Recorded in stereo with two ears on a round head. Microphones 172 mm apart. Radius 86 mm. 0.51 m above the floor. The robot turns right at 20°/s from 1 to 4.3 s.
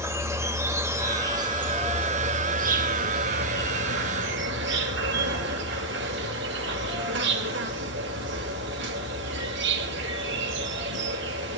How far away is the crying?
No crying in this recording.